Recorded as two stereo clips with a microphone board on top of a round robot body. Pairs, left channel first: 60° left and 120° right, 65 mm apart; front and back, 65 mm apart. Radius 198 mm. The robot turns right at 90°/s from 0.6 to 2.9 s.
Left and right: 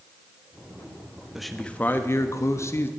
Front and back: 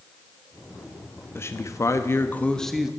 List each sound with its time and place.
1.4 s a man speaking: 35° right, 1.2 m; by 2.9 s 100° left, 1.2 m